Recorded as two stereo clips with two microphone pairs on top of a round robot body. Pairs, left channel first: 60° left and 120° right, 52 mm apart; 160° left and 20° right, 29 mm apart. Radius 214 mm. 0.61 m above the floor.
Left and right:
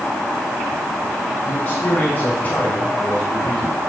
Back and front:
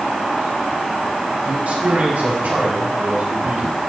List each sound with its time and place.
1.4 s a man speaking: 5° left, 6.5 m; by 3.8 s 15° right, 6 m